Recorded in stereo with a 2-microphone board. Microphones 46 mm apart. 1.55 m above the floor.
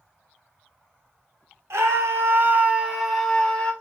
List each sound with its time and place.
1.7 s a scream: 85° right, 1.0 m; by 3.7 s 20° left (ahead or behind), 1.1 m